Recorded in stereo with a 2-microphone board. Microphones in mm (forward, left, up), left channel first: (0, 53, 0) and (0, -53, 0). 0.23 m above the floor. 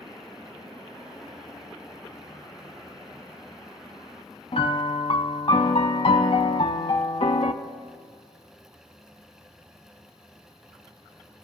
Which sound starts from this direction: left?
A piano, at 4.5 s.